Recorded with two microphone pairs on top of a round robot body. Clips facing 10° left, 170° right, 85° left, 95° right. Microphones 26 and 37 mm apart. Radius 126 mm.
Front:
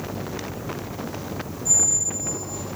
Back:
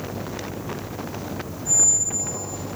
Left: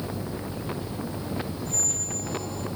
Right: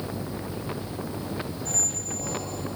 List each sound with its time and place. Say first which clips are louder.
1.6 s a squeak: back 1 dB, even; 120° right, 1.3 m